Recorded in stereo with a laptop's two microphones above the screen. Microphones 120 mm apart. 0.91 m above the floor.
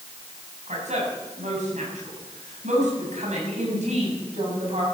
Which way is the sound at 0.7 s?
75° right (ahead or behind).